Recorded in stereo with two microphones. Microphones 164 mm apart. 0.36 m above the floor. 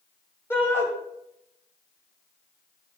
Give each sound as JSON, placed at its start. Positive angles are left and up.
{"t": 0.5, "sound": "a shout", "side_deg": 15, "distance_m": 2.5}